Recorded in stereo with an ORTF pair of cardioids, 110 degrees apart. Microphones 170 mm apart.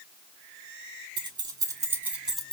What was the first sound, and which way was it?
Keys jangling, 30° right.